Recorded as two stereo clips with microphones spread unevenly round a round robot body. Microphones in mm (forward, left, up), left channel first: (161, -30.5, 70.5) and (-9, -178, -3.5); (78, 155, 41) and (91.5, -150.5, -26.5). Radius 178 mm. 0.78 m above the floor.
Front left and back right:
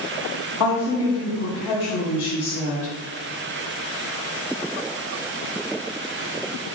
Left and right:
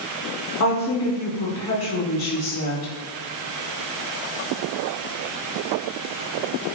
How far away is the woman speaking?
About 1.5 m.